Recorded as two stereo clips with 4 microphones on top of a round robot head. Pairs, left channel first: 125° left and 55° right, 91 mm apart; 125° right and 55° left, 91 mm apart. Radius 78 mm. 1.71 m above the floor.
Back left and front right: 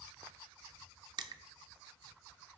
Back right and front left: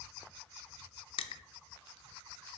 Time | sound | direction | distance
1.2 | crushing | 95° right | 0.8 m